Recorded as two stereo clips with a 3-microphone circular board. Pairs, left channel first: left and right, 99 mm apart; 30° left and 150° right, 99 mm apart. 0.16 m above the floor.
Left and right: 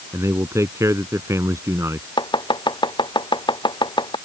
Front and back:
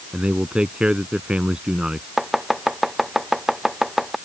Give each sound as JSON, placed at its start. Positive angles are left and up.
{"t": 0.1, "sound": "a man speaking", "azimuth_deg": -80}
{"t": 2.2, "sound": "chopping", "azimuth_deg": 125}